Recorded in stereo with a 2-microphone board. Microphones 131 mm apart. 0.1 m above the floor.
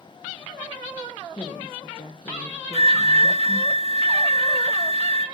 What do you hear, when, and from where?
1.3 s a woman speaking: 40° left (ahead or behind), 2.5 m
2.7 s a flute: 45° right (ahead or behind), 0.7 m